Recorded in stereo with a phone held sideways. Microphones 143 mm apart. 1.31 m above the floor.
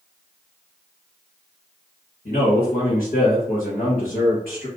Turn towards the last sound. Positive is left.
turn(degrees=75)  # may be behind; listen again after turning